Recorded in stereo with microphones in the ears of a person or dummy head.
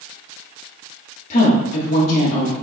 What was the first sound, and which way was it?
A woman speaking, 50° left (ahead or behind).